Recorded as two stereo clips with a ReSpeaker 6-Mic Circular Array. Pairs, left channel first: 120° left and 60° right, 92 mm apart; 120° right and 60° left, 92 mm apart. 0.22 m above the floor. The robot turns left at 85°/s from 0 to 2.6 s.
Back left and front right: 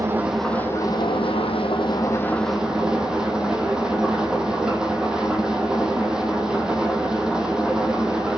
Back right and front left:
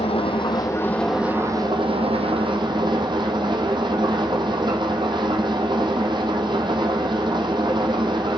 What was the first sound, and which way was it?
An engine running, 115° right.